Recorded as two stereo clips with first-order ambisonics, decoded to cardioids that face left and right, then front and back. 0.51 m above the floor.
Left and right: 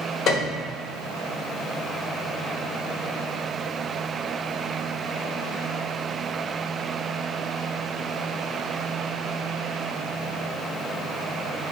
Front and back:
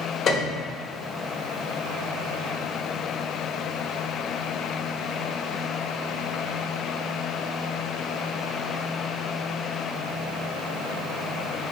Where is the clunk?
I don't hear a clunk.